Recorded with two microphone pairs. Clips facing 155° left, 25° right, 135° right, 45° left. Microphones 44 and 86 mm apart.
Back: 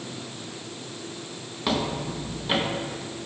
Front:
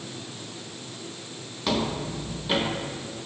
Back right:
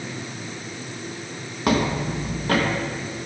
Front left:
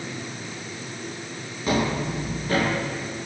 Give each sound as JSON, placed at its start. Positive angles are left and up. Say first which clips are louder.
{"t": 1.7, "sound": "footsteps", "louder": "even, back right 2 dB", "azimuth_deg": -130, "distance_m": 3.0}